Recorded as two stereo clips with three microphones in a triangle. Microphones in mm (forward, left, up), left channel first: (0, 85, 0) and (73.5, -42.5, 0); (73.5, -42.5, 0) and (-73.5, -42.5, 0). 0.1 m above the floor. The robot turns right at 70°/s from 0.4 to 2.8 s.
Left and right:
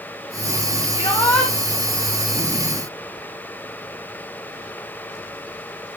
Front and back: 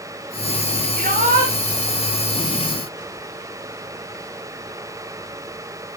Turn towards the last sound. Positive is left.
turn(degrees=-60)